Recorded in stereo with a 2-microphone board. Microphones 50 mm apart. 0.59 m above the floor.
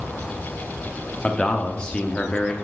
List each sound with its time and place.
1.2 s a man speaking: 20° left (ahead or behind), 0.7 m